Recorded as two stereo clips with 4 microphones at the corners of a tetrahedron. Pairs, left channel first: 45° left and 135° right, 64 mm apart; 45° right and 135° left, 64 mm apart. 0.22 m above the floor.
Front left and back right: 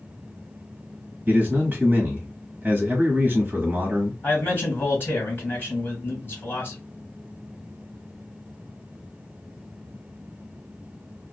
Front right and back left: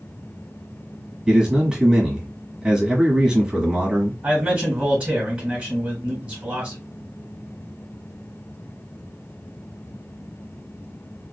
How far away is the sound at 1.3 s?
About 1.2 m.